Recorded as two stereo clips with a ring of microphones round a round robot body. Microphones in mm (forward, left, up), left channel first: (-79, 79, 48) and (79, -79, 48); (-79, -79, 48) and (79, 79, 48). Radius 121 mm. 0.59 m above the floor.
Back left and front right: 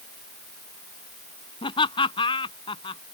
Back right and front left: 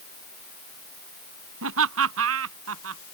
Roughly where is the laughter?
Ahead left.